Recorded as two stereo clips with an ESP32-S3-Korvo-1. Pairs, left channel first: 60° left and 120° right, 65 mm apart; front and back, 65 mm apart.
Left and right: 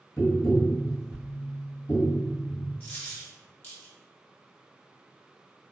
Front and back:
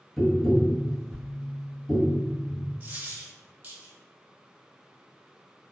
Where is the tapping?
75° left, 0.9 m.